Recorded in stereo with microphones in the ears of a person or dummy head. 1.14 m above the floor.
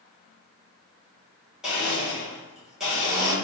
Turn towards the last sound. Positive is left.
turn(degrees=0)  # may be behind; listen again after turning